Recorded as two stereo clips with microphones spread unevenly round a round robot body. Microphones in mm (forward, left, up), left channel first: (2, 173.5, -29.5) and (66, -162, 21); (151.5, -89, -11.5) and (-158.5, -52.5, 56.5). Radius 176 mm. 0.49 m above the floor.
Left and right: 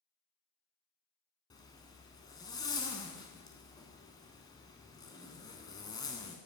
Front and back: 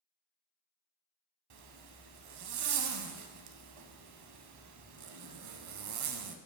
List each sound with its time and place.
1.5 s a zipper: 175° right, 0.6 m